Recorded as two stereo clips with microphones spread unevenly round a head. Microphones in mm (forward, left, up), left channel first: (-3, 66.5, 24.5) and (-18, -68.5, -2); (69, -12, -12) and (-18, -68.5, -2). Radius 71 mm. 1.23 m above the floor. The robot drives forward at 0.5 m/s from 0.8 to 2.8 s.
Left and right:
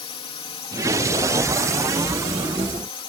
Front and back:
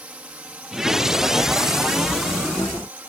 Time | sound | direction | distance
0.0 | a drone | 135° left | ?